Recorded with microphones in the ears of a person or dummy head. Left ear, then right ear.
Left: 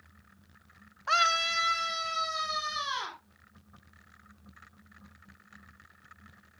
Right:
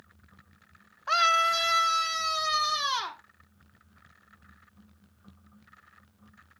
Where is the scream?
5° right (ahead or behind), 0.7 m; by 3.2 s 65° right (ahead or behind), 2.5 m.